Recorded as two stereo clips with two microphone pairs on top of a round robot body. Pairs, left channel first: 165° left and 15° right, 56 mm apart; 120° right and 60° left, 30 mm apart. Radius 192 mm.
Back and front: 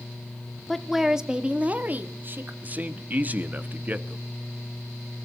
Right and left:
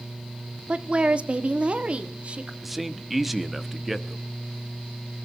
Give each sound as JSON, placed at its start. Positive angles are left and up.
{"t": 0.7, "sound": "a woman speaking", "azimuth_deg": 85, "distance_m": 1.2}
{"t": 2.6, "sound": "a man speaking", "azimuth_deg": -15, "distance_m": 1.3}